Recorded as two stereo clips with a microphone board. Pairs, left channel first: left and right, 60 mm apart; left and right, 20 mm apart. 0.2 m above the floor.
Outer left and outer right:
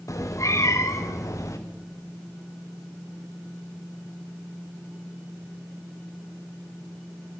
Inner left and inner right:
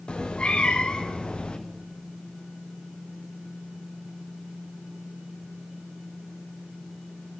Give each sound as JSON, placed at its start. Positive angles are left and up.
{"t": 0.1, "sound": "a cat meowing", "side_deg": 55, "distance_m": 3.5}